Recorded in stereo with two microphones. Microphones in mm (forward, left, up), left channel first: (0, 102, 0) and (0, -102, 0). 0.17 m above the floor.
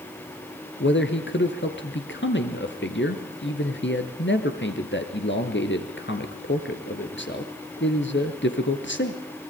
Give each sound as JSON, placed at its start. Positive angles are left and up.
{"t": 0.8, "sound": "a man speaking", "side_deg": 65, "distance_m": 3.0}